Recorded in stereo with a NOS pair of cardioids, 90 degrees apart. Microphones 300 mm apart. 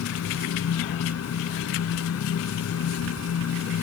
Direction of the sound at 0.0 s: 55° left.